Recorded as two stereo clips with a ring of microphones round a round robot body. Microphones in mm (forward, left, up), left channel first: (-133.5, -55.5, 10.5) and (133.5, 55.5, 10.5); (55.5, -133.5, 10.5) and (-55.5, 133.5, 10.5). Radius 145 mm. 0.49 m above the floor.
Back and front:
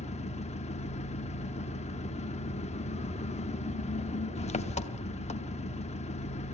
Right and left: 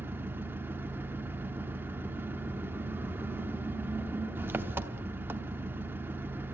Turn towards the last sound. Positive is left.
turn(degrees=-175)